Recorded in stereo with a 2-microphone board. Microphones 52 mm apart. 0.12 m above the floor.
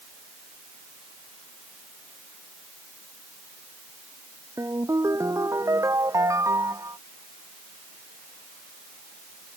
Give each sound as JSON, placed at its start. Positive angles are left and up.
{"t": 4.6, "sound": "a ringtone", "side_deg": -70}